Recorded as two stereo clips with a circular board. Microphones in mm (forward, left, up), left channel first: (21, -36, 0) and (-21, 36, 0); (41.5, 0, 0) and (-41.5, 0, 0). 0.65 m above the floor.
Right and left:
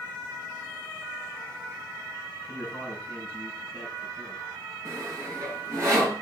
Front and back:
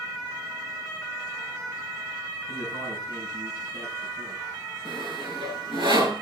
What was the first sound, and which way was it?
A man speaking, 175° right.